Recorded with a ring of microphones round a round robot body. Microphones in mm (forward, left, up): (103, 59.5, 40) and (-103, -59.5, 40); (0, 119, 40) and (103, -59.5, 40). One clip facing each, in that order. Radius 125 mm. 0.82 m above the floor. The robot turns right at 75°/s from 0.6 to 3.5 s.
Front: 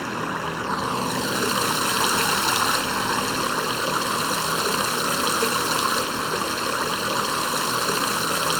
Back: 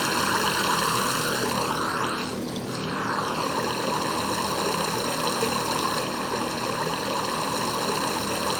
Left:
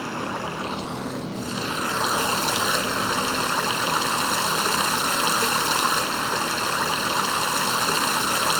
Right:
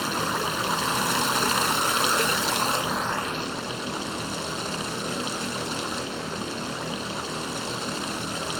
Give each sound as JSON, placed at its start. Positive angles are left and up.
{"t": 0.0, "sound": "running water", "azimuth_deg": -115}